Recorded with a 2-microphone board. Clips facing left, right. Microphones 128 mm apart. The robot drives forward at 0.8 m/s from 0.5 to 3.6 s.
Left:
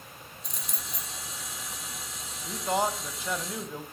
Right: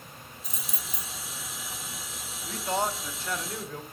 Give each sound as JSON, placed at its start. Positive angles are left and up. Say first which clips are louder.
{"t": 0.4, "sound": "keys jangling", "louder": "even", "side_deg": 0, "distance_m": 0.8}
{"t": 2.5, "sound": "a man speaking", "louder": "left 1 dB", "side_deg": 10, "distance_m": 1.5}